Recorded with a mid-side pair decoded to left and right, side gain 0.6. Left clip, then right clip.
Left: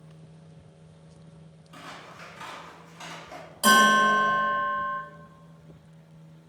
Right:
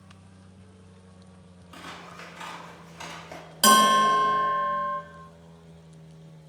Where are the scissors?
30° right, 1.2 m.